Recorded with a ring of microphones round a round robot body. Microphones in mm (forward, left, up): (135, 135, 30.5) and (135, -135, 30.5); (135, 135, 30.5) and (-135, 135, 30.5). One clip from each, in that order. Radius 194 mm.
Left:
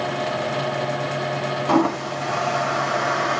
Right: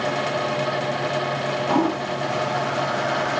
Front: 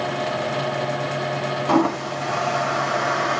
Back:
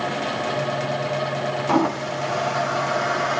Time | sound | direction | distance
1.7 | a toilet flushing | 65° left | 1.5 m